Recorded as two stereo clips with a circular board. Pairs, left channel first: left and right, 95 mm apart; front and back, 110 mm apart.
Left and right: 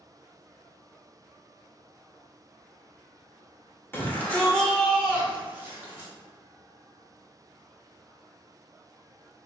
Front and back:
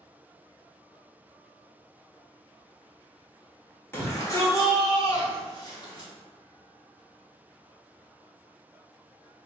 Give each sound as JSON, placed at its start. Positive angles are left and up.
{"t": 3.9, "sound": "a shout", "azimuth_deg": 45, "distance_m": 1.4}